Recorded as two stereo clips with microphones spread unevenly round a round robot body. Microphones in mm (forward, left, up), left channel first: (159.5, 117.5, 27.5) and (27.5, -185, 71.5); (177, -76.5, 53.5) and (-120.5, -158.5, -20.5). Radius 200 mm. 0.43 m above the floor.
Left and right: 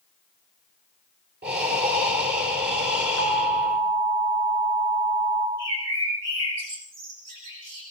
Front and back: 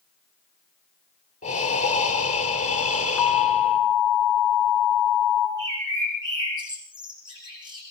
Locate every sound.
1.4 s breathing: 55° right, 5 m
3.2 s an alarm: 75° right, 7 m
5.6 s a bird: 90° right, 9.5 m